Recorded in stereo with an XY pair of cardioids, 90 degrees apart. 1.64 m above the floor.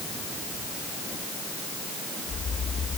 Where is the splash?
I don't hear a splash.